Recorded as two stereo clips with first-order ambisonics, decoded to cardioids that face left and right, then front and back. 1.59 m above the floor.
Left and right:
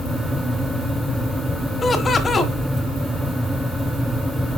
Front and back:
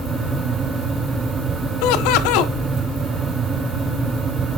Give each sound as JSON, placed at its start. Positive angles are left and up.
{"t": 1.8, "sound": "laughter", "azimuth_deg": 15, "distance_m": 1.5}